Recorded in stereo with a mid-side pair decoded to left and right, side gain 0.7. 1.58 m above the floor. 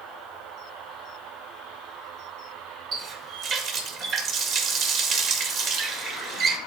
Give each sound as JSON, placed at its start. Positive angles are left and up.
{"t": 2.9, "sound": "a running tap", "azimuth_deg": -50, "distance_m": 1.6}